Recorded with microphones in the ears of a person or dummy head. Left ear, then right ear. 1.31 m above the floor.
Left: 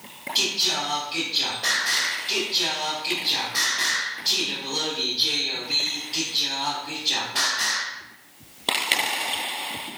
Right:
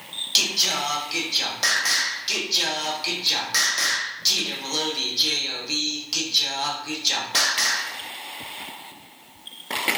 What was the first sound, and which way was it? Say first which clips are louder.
Singing: right 2 dB; 80° right.